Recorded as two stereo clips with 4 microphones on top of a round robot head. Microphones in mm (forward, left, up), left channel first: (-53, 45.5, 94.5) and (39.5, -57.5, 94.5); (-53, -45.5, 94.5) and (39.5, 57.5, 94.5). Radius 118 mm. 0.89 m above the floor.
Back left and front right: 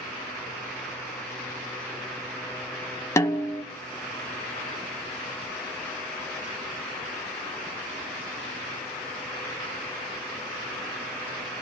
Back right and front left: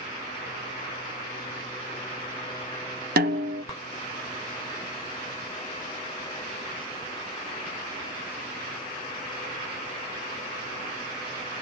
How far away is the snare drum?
About 0.7 m.